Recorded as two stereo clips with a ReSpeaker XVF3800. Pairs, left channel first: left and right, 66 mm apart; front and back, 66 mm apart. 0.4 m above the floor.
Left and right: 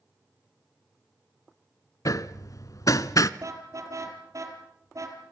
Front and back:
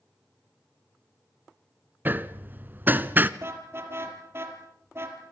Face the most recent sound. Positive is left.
turn(degrees=-130)